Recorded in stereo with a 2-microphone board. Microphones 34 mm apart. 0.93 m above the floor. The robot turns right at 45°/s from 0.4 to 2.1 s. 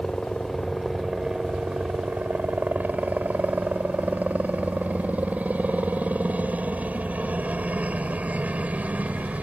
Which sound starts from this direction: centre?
A helicopter, at 0.0 s.